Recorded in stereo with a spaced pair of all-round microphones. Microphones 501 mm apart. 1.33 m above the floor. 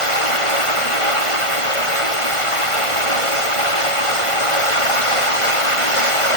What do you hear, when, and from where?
0.0 s running water: 85° left